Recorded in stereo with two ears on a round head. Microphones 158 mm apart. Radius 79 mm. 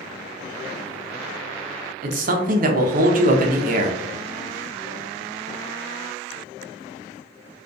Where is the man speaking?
50° right (ahead or behind), 0.6 m.